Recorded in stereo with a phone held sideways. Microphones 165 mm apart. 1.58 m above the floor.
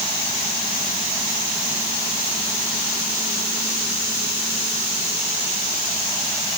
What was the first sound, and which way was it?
Only background noise.